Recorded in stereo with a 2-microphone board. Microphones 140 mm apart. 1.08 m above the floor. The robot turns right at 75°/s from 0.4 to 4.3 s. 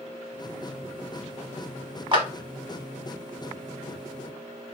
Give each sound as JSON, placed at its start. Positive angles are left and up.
{"t": 2.1, "sound": "a clap", "side_deg": -40, "distance_m": 0.9}